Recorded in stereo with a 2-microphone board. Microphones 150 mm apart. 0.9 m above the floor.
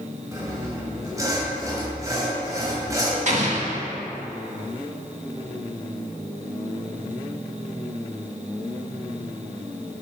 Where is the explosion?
50° right (ahead or behind), 1.4 m.